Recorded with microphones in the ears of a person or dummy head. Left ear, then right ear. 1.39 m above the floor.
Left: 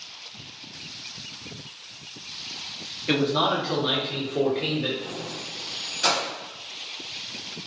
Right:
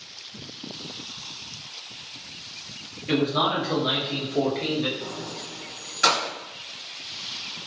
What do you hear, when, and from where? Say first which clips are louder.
3.1 s a man speaking: even; 30° left (ahead or behind), 0.7 m; by 4.9 s 15° right (ahead or behind), 1.3 m
5.0 s keys jangling: left 1 dB; 30° right (ahead or behind), 1.3 m